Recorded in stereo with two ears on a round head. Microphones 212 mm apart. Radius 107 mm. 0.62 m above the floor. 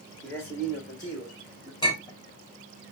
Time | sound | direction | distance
0.2 | a man speaking | 10° left (ahead or behind) | 1.2 m
1.8 | a clink | 15° left (ahead or behind) | 3 m